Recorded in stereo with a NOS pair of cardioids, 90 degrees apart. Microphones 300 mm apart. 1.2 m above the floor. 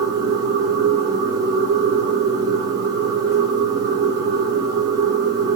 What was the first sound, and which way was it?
A machine running, 55° right.